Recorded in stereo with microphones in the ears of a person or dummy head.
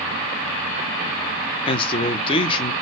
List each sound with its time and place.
1.7 s a man speaking: 30° left (ahead or behind), 0.7 m